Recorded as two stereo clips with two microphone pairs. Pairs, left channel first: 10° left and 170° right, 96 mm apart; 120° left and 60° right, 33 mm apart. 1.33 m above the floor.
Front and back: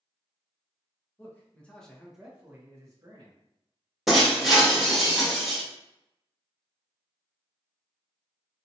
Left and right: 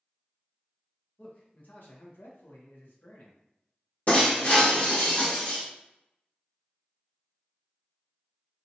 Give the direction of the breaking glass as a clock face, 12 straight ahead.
9 o'clock.